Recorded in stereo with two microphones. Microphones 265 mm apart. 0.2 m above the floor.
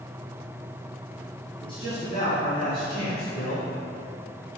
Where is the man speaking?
20° left (ahead or behind), 1.9 m; by 3.7 s 45° left (ahead or behind), 4.5 m.